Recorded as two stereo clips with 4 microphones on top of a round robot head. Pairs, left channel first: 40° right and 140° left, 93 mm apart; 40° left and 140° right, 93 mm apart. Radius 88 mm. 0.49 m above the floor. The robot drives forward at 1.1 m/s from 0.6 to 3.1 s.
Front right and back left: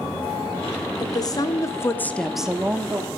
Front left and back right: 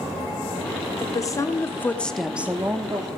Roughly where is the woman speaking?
Ahead.